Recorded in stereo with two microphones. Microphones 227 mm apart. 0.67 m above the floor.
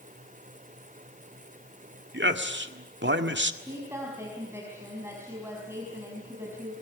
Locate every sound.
2.1 s a man speaking: 55° right (ahead or behind), 1.7 m
3.6 s a woman speaking: 10° right (ahead or behind), 5 m